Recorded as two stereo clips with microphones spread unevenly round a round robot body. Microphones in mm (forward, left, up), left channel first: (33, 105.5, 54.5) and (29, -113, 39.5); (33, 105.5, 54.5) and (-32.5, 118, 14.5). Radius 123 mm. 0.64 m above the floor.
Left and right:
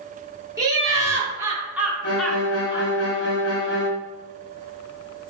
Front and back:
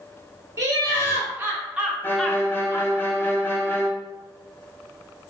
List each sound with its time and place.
0.6 s laughter: 165° right, 1.9 m; by 2.9 s 30° left, 0.8 m
2.0 s a violin: 65° left, 1.1 m